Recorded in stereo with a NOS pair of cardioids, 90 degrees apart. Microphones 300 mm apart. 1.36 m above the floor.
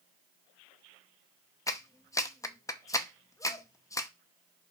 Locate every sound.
1.7 s a clap: 10° left, 0.6 m